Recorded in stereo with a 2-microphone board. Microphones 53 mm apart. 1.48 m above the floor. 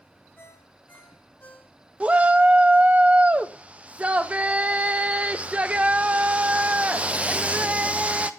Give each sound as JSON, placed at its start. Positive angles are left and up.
{"t": 0.4, "sound": "a ringtone", "side_deg": 35, "distance_m": 3.0}
{"t": 2.0, "sound": "a shout", "side_deg": -25, "distance_m": 0.6}